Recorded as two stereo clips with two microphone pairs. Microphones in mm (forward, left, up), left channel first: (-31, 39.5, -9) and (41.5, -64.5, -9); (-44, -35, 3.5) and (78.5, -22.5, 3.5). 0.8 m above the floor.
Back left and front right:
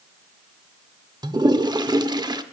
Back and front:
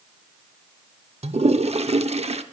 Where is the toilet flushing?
5° right, 0.7 m.